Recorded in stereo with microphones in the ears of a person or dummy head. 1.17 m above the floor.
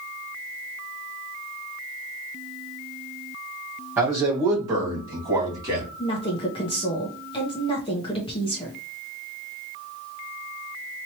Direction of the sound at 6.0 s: 25° left (ahead or behind).